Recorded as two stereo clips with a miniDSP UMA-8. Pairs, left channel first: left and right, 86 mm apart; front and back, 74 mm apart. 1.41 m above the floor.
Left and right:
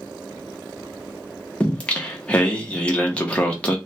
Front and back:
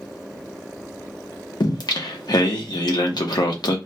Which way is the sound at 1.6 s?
15° left.